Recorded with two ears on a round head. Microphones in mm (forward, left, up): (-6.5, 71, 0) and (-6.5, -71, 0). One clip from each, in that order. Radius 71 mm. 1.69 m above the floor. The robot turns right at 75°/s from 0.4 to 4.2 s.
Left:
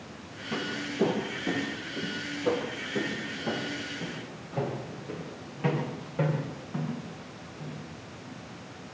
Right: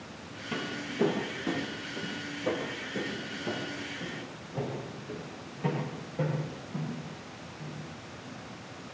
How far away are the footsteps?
About 2.5 m.